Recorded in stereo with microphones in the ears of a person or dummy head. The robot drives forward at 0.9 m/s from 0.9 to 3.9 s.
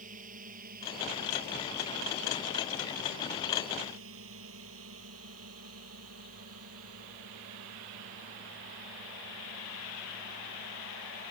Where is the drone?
45° right (ahead or behind); by 11.3 s 70° right (ahead or behind).